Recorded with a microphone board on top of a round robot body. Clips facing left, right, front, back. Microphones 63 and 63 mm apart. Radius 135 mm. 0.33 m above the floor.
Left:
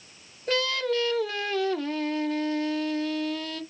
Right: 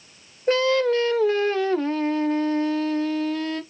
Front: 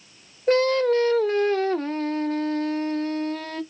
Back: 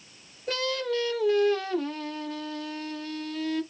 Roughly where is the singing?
Ahead right.